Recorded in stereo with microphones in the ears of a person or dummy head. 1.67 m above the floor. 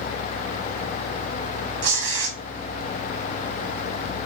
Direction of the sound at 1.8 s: 75° right (ahead or behind).